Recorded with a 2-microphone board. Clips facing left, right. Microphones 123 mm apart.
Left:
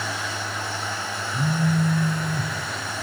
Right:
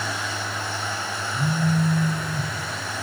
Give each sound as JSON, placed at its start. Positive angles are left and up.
{"t": 1.3, "sound": "a phone buzzing", "side_deg": 30, "distance_m": 0.7}